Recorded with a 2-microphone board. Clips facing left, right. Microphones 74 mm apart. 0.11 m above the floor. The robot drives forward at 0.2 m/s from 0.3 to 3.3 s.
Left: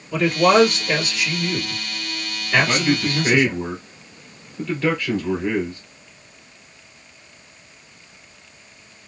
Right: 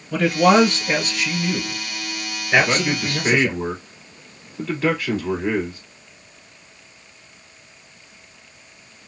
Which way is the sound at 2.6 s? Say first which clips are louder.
Left 1 dB; 15° right (ahead or behind).